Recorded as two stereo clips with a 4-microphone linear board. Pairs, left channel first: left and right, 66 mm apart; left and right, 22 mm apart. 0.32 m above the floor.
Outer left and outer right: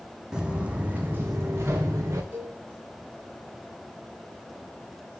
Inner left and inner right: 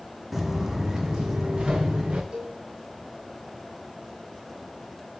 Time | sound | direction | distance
0.3 | footsteps | 10° right (ahead or behind) | 1.2 m
2.3 | a cowbell | 35° right (ahead or behind) | 5.5 m